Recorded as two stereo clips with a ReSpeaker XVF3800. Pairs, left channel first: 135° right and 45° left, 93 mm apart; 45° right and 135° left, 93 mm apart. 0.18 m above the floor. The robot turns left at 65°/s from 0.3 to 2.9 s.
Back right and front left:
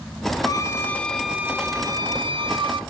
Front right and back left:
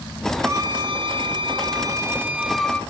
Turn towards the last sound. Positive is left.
turn(degrees=30)